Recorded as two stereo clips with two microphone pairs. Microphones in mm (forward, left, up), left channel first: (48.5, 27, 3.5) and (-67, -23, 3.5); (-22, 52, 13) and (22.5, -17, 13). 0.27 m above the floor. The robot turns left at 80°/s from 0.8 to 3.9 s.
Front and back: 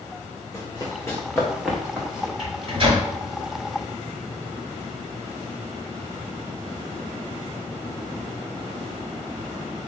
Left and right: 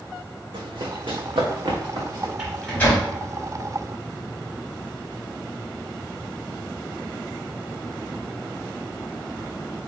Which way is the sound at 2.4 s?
140° right.